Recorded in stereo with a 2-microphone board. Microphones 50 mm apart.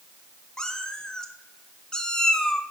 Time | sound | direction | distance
0.6 | a cat meowing | 15° left (ahead or behind) | 0.8 m